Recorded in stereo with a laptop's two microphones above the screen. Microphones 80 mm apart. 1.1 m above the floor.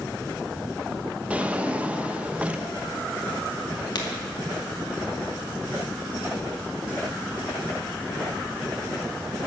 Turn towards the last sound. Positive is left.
turn(degrees=60)  # may be behind; listen again after turning